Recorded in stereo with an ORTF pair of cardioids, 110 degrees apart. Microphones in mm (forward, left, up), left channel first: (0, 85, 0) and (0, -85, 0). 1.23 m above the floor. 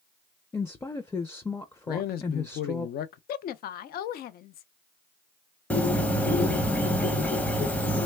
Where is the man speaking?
65° left, 0.6 m.